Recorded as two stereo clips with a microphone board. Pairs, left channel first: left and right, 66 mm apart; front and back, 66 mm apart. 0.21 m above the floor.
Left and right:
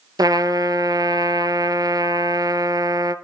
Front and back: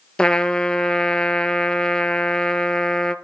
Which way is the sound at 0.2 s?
75° right.